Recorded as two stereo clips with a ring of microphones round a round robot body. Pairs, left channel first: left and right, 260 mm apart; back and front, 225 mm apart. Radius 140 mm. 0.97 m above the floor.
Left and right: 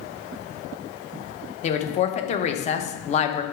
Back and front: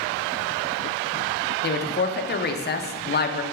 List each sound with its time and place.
1.6 s a woman speaking: 150° left, 0.8 m